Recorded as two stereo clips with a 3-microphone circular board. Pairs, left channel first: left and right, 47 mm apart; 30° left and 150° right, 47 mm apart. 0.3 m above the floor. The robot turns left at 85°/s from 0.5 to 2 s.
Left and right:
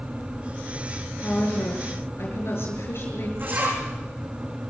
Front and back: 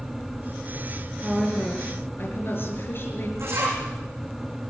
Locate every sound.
1.2 s a woman speaking: 130° left, 6 m; by 3.3 s 60° left, 6 m
3.4 s a zipper: 130° right, 7.5 m